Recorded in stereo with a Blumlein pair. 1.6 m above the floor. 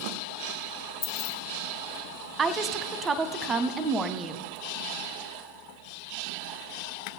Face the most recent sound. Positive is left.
turn(degrees=-20)